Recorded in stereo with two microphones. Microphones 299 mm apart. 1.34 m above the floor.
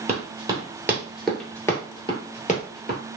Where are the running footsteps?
20° right (ahead or behind), 1.6 m; by 3.0 s 35° left (ahead or behind), 1.5 m.